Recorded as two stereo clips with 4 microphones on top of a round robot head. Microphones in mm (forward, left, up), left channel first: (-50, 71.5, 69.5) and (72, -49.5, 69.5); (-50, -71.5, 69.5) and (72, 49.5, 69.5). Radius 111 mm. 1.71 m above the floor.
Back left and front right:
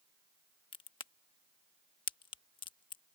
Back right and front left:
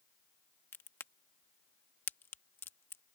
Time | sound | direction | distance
0.7 | a crack | 160° left | ?